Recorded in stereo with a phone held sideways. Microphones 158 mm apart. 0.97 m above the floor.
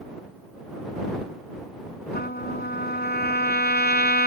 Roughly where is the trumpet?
Left.